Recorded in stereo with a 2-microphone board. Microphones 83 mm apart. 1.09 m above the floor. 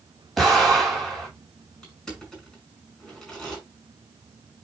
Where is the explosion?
Centre (ahead or behind), 7 m.